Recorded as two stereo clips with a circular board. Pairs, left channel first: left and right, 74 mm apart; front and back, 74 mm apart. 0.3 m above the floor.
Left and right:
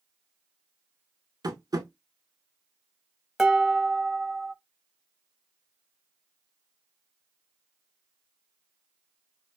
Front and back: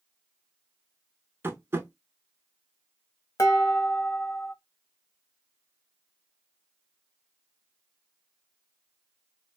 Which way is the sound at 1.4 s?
125° right.